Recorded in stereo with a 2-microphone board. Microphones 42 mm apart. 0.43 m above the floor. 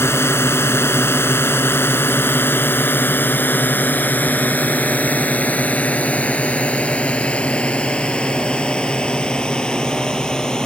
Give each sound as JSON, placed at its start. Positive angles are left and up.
{"t": 0.0, "sound": "a drone", "side_deg": 75}